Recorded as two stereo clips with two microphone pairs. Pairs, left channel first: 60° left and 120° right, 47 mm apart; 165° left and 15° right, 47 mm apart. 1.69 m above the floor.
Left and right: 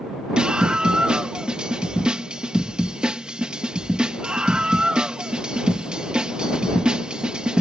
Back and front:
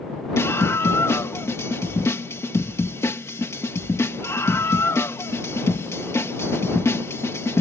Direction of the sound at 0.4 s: 170° left.